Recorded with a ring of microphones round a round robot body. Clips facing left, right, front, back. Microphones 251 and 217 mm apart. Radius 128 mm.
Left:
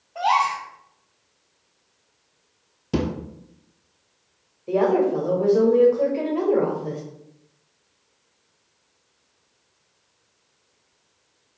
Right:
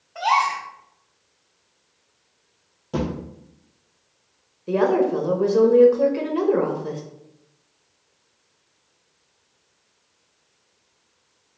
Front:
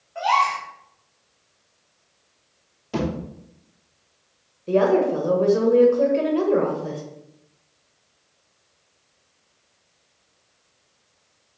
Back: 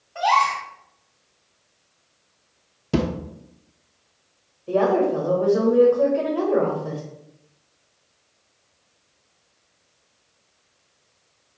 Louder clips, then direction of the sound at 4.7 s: Even, front 1 dB; 45° right.